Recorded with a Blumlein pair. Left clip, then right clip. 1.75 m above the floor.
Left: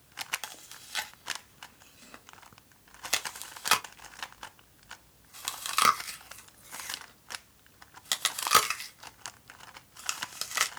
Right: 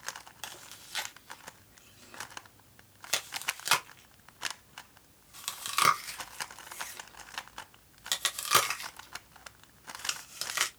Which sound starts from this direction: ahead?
Chewing, at 0.4 s.